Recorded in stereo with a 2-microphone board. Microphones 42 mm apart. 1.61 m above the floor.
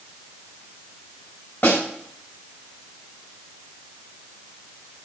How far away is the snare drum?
About 5.5 m.